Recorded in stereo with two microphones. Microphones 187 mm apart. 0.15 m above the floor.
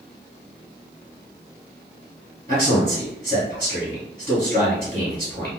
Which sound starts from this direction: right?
A man speaking, at 2.5 s.